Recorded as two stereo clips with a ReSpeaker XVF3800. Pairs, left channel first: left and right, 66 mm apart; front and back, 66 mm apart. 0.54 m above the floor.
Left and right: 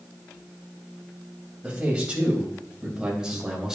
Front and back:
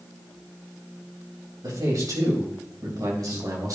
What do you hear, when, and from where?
1.6 s a man speaking: 160° right, 3.5 m; by 3.8 s 170° right, 2.5 m